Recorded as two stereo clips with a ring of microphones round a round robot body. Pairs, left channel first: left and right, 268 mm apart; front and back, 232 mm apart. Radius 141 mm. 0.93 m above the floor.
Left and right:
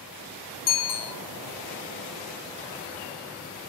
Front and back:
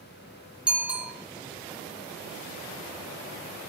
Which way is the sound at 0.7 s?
95° left.